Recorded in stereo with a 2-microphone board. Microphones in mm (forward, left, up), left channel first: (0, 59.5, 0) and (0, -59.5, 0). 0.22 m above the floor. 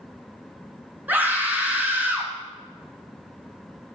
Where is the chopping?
I don't hear chopping.